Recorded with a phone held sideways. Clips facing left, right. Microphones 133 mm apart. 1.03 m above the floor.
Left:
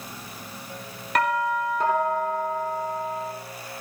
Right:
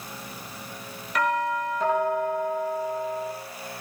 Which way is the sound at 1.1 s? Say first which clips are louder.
Left 2 dB; 70° left (ahead or behind).